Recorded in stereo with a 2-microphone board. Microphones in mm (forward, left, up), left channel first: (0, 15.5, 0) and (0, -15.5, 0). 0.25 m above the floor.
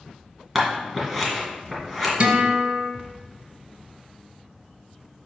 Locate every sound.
0.6 s scissors: 10° right (ahead or behind), 2.5 m
2.2 s a guitar: 40° right (ahead or behind), 1.8 m